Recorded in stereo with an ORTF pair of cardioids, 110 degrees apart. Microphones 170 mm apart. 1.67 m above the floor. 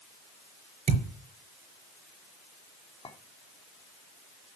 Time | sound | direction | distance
0.9 | a thud | 40° right | 5 m
3.0 | a clink | 30° left | 3 m